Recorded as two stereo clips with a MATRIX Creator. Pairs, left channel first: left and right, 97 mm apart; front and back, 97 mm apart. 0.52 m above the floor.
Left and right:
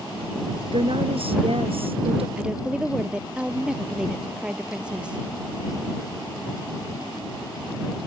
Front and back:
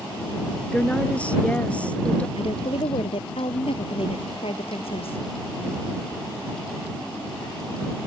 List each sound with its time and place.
0.7 s a woman speaking: 75° right
2.4 s a woman speaking: 10° right